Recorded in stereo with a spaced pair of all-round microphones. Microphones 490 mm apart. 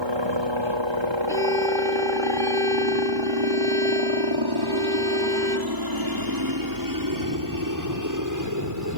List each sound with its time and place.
0.0 s a helicopter: 60° right (ahead or behind); by 9.0 s 35° right (ahead or behind)
1.3 s a violin: 5° left (ahead or behind)